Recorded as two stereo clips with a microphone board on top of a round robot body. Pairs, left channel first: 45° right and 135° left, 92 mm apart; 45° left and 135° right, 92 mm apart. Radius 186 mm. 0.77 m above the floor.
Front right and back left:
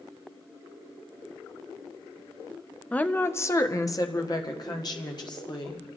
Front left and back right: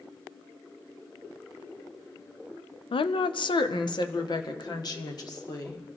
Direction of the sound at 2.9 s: 30° left.